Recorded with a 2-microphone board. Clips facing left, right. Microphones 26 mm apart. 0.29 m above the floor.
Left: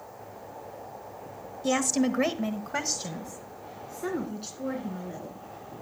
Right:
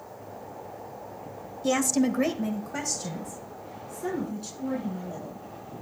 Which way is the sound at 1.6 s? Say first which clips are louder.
Right 1 dB; centre (ahead or behind).